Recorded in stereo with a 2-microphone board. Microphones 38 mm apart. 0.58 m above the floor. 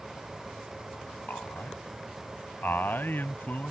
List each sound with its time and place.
1.3 s a man speaking: 60° left (ahead or behind)